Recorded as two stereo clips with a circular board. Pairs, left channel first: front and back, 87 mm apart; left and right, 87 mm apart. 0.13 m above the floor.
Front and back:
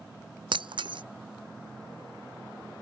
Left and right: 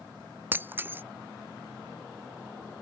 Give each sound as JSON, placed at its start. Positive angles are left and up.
{"t": 0.5, "sound": "breaking glass", "azimuth_deg": -155}